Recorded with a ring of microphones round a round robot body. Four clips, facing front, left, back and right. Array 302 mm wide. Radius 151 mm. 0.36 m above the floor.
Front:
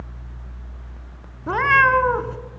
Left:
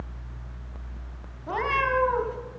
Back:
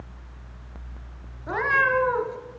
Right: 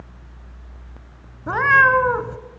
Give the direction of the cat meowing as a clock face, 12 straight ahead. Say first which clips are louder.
Right 10 dB, front 6 dB; 2 o'clock.